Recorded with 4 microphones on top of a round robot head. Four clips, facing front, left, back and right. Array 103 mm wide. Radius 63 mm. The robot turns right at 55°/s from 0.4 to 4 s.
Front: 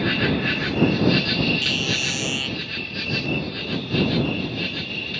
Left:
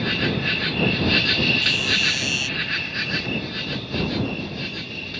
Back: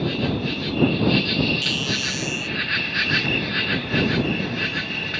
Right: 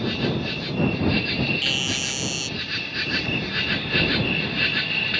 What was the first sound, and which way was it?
An insect, 30° left.